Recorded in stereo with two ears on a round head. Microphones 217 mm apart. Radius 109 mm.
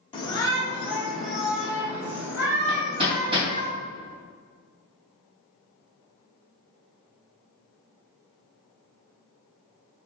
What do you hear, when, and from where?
0.1 s a shout: 20° left (ahead or behind), 1.7 m; by 3.7 s 15° right (ahead or behind), 4.5 m
2.7 s hammering: 20° right (ahead or behind), 2.5 m